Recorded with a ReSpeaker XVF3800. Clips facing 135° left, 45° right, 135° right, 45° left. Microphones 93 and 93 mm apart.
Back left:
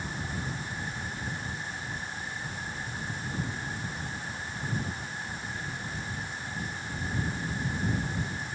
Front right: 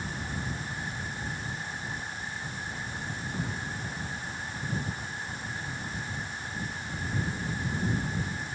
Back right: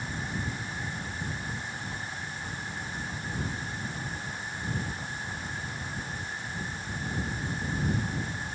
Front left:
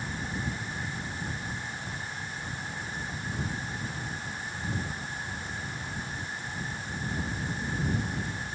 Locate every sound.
Only background noise.